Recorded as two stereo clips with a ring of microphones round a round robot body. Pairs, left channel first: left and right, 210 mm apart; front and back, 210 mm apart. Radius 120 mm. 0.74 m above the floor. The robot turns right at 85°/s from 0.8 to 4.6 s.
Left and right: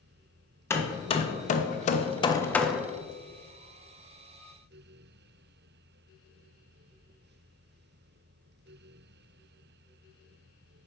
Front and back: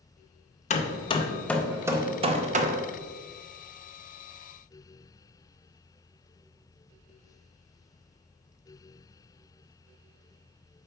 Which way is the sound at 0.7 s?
20° left.